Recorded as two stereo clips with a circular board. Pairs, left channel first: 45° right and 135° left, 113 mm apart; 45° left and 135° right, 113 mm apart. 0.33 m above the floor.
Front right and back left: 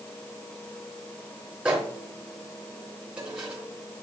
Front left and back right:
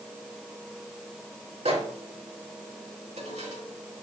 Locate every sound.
1.6 s a microwave: 145° right, 3.5 m